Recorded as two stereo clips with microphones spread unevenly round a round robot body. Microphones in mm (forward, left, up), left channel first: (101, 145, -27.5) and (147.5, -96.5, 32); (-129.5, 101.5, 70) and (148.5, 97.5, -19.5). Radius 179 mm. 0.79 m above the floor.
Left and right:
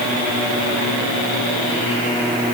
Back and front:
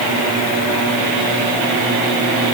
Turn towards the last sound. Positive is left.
No sound to turn to.